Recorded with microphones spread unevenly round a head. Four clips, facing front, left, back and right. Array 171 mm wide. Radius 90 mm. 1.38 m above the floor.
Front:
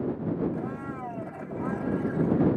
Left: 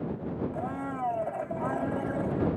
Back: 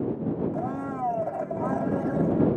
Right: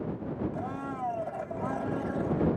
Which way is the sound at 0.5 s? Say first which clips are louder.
Left 2 dB, back 4 dB; 165° left.